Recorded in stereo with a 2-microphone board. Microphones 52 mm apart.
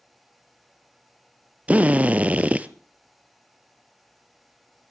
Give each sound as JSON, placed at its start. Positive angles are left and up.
{"t": 1.7, "sound": "a drill", "side_deg": -25, "distance_m": 0.9}